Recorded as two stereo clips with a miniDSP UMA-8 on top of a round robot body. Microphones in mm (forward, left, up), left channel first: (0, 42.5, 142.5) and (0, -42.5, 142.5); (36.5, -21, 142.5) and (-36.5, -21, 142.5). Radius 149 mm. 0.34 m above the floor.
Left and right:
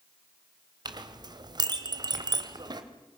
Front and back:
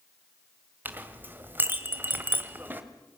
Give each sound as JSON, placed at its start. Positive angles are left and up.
{"t": 0.8, "sound": "a clink", "azimuth_deg": -120, "distance_m": 2.0}